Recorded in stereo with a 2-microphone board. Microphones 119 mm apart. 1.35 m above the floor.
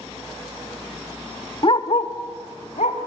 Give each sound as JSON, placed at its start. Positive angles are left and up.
{"t": 1.6, "sound": "a dog barking", "side_deg": 45, "distance_m": 1.3}